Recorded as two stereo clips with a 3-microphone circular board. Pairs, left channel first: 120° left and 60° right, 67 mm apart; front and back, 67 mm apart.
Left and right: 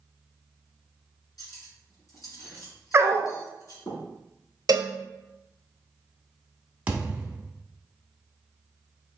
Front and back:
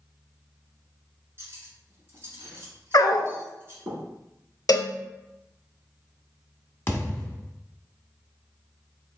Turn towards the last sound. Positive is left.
turn(degrees=-10)